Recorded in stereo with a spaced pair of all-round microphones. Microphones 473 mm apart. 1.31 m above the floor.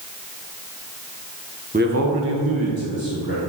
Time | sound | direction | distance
1.7 | a man speaking | 15° right (ahead or behind) | 1.0 m